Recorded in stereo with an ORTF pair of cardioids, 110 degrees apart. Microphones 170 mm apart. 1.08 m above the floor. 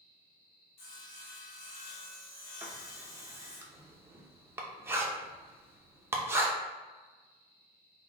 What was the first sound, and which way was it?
Sawing, 55° left.